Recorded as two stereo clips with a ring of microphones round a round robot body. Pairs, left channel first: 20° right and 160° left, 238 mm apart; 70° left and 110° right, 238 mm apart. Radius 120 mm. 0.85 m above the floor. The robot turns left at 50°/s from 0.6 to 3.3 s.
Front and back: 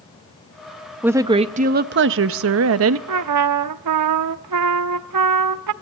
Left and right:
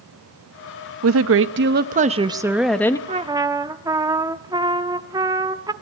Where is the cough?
No cough in this recording.